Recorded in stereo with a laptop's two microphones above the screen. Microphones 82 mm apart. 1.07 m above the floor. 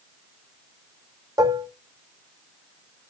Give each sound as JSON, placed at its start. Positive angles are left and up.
{"t": 1.4, "sound": "dishes clattering", "side_deg": -50, "distance_m": 1.3}